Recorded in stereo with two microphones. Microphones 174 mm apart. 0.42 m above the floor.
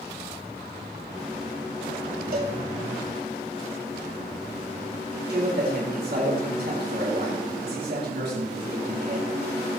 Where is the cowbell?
60° right (ahead or behind), 3 m.